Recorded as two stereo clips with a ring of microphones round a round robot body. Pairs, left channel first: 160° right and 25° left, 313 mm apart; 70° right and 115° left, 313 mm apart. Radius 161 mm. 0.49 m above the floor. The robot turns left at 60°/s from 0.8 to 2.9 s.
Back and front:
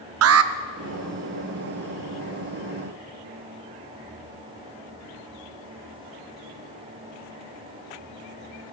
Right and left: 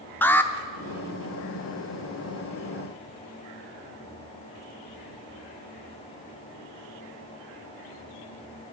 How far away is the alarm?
About 0.5 m.